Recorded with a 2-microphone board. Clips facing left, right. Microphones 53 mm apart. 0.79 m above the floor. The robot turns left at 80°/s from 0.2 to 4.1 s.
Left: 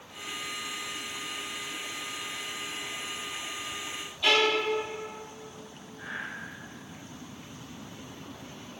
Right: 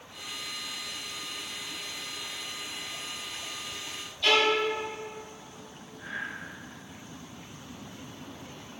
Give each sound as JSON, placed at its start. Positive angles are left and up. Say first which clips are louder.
{"t": 4.2, "sound": "a violin", "louder": "right 1 dB", "side_deg": 10, "distance_m": 2.5}
{"t": 6.0, "sound": "breathing", "louder": "right 1 dB", "side_deg": 30, "distance_m": 1.8}